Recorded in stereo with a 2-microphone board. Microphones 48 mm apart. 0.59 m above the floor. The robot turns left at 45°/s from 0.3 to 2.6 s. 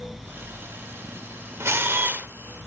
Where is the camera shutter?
105° right, 1.4 m; by 2.3 s 135° right, 1.4 m.